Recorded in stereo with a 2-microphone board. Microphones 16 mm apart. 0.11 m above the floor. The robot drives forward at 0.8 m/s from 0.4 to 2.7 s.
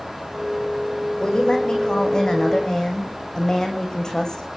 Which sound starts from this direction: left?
A woman speaking, at 1.2 s.